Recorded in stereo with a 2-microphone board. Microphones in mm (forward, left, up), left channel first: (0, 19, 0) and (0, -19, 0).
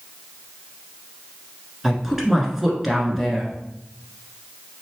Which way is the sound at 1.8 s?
10° right (ahead or behind).